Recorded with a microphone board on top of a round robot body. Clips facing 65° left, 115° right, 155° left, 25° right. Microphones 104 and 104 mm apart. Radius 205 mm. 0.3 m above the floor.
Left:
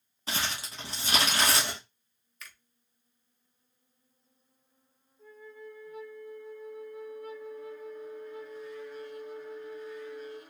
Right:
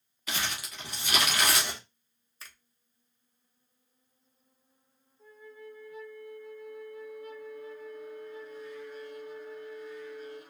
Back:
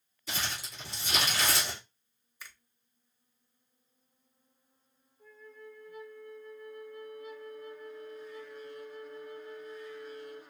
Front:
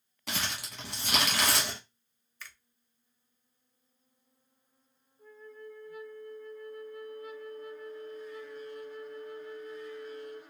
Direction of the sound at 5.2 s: 20° left.